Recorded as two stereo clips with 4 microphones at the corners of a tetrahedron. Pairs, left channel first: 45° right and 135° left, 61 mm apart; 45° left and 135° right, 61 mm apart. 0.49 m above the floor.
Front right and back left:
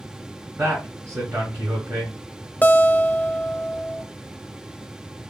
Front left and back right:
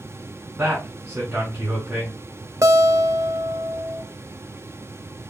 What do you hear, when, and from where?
0.6 s a man speaking: 175° left, 2.5 m
2.6 s a guitar: 105° right, 0.5 m